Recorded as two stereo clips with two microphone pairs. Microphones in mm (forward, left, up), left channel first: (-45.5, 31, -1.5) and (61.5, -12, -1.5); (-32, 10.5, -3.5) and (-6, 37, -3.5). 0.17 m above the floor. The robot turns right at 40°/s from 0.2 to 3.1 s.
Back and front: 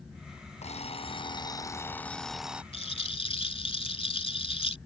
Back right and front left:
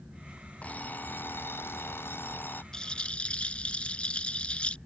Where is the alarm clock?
Straight behind; by 2.6 s 100° right.